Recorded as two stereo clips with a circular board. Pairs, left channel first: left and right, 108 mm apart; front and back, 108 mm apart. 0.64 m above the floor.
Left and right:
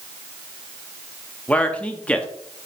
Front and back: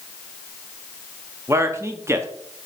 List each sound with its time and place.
1.5 s a man speaking: 160° left, 0.7 m